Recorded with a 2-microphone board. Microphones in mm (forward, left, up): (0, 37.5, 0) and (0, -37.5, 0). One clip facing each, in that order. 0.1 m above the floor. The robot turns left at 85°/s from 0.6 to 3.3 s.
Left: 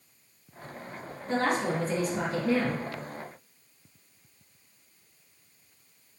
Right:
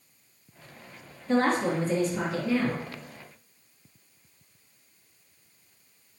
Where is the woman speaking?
75° right, 2 m; by 2.8 s 155° left, 2 m.